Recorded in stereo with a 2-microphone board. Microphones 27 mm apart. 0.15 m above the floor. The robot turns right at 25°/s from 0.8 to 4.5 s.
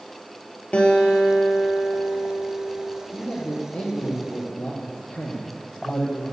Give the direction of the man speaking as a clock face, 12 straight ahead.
11 o'clock.